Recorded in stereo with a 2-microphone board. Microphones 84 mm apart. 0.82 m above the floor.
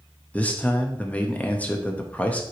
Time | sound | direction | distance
0.3 | a man speaking | 15° left (ahead or behind) | 1.0 m